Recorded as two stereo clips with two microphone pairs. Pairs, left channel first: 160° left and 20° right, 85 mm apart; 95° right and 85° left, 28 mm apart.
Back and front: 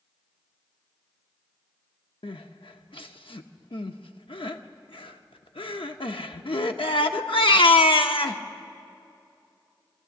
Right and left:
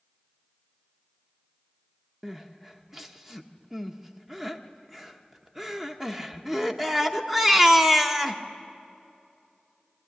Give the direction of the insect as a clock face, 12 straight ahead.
I don't hear an insect.